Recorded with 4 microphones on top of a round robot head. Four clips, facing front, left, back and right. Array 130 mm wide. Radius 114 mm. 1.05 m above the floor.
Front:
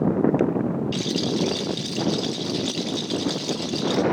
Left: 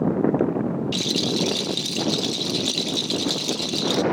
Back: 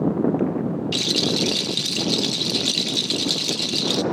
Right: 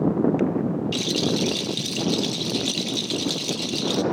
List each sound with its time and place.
0.9 s a rattle: 170° left, 1.0 m